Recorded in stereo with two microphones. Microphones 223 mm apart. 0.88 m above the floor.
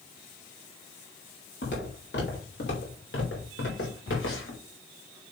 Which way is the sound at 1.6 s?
50° left (ahead or behind).